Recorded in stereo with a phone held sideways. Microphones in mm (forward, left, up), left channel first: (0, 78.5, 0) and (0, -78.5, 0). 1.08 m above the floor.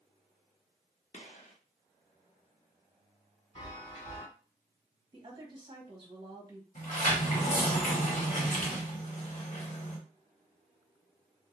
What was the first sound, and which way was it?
A gunshot, 50° left (ahead or behind).